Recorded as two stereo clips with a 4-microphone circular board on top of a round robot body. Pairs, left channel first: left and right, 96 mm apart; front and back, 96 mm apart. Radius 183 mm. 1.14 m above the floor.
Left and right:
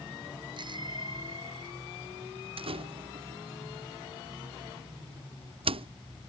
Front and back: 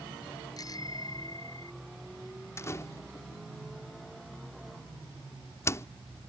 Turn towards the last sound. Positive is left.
turn(degrees=-65)